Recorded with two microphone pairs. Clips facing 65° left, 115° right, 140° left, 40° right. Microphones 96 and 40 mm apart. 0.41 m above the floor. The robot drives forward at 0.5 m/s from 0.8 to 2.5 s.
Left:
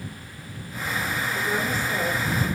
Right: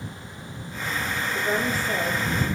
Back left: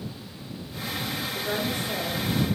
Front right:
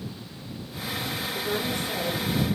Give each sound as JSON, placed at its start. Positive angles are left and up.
{"t": 1.3, "sound": "a woman speaking", "azimuth_deg": -155, "distance_m": 4.5}